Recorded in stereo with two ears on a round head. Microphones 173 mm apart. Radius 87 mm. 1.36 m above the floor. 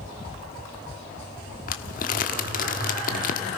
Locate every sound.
1.7 s crumpling: 45° left (ahead or behind), 1.3 m